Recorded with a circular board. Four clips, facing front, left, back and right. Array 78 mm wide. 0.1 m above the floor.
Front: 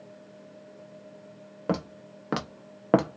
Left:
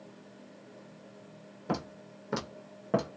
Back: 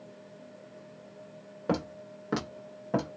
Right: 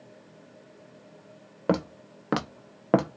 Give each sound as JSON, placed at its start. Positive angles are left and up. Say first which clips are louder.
{"t": 1.7, "sound": "footsteps", "louder": "right 8 dB, front 1 dB", "azimuth_deg": -80, "distance_m": 1.3}